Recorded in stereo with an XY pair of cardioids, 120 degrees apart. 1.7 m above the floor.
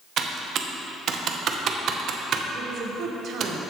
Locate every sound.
0.2 s typing on a keyboard: 55° right, 0.9 m
2.5 s a woman speaking: 55° right, 1.2 m